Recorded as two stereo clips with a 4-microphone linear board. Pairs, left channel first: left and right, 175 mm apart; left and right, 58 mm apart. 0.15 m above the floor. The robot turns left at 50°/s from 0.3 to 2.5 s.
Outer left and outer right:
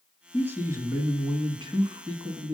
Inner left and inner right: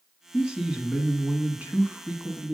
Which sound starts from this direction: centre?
A man speaking, at 0.3 s.